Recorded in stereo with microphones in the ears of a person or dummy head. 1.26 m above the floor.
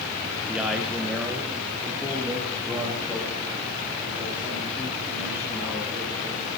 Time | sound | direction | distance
0.5 | a man speaking | 15° right (ahead or behind) | 0.9 m